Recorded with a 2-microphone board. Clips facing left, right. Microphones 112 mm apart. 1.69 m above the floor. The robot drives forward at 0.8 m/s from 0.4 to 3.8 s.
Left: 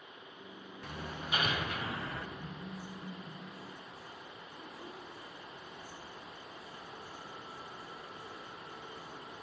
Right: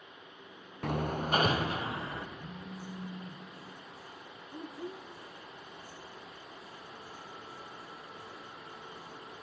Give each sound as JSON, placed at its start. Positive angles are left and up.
{"t": 0.8, "sound": "hammering", "side_deg": -60, "distance_m": 0.6}
{"t": 2.4, "sound": "a phone buzzing", "side_deg": 20, "distance_m": 5.0}
{"t": 4.5, "sound": "a child speaking", "side_deg": -65, "distance_m": 1.1}